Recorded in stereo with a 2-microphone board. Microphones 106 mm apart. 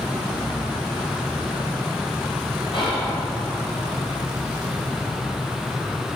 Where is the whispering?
50° left (ahead or behind), 0.8 m.